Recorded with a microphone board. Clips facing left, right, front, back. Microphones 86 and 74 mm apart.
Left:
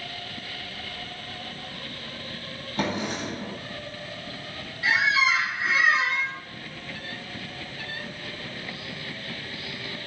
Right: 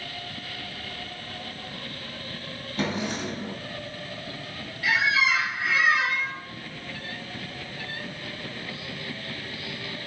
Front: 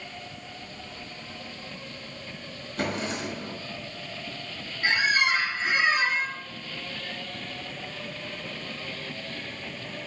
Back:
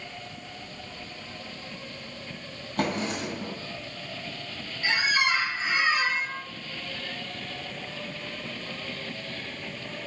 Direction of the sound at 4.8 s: 35° left.